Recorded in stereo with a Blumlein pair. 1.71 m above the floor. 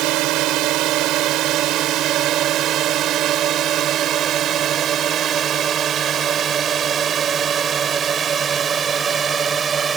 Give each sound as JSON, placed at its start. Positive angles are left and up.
{"t": 0.0, "sound": "a drone", "azimuth_deg": -40}